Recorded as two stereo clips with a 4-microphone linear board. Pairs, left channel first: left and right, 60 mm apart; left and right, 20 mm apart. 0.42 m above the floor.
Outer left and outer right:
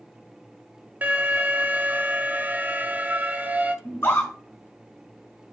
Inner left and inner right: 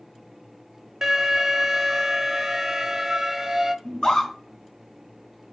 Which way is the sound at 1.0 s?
30° right (ahead or behind).